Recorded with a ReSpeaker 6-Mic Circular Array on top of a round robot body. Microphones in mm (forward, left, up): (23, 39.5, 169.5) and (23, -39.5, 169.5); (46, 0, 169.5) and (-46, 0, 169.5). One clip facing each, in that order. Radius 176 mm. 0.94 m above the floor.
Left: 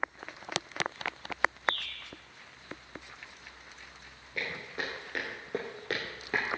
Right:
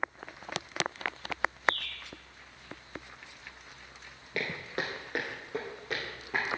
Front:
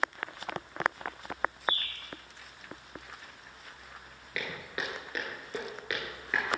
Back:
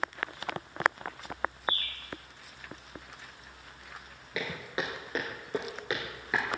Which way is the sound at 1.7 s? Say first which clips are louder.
Right 3 dB, front 1 dB; 60° left.